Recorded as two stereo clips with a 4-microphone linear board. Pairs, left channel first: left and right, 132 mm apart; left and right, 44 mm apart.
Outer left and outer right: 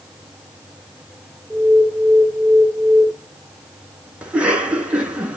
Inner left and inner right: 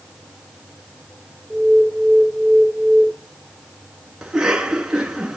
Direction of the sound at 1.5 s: 15° left (ahead or behind).